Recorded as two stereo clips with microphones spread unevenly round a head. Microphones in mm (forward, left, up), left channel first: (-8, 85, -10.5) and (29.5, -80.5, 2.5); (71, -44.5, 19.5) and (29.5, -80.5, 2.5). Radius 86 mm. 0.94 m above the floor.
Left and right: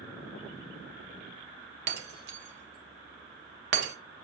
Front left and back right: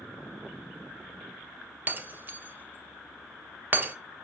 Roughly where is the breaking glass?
Right.